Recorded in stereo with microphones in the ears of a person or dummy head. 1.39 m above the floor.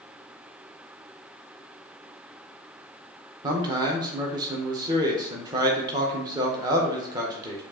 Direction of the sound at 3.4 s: 25° right (ahead or behind).